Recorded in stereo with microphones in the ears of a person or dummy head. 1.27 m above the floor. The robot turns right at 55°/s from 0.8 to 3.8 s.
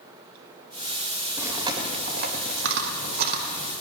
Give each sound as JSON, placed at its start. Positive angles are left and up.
{"t": 1.4, "sound": "chewing", "side_deg": -10, "distance_m": 1.8}